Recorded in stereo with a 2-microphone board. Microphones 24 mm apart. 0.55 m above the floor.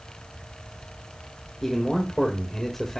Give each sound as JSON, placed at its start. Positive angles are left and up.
{"t": 1.6, "sound": "a man speaking", "side_deg": 20, "distance_m": 1.8}